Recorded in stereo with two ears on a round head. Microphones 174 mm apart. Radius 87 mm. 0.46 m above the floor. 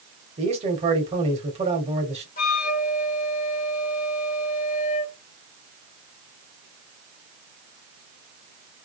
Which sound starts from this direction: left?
A flute, at 2.4 s.